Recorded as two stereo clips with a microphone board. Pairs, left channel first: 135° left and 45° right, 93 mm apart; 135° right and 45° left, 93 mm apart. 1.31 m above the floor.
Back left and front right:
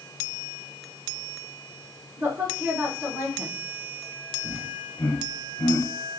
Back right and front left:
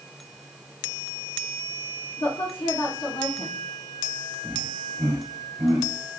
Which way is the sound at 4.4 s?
85° left.